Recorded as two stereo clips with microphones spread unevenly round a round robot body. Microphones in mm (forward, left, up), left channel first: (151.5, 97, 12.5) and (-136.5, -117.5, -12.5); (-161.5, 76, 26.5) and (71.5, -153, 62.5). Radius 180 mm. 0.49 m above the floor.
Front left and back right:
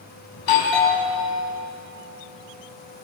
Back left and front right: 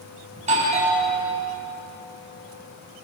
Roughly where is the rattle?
I don't hear a rattle.